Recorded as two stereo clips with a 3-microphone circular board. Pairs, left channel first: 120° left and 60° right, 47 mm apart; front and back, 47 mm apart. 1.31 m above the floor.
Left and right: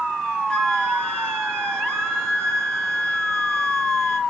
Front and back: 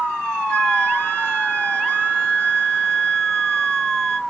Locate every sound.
0.5 s a flute: 60° left, 1.2 m